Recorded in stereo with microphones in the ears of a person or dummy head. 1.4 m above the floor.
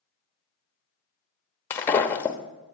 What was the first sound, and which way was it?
Breaking glass, 15° left (ahead or behind).